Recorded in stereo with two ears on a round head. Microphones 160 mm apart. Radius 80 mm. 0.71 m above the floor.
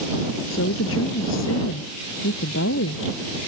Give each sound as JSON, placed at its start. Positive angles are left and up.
{"t": 0.5, "sound": "a woman speaking", "side_deg": 85}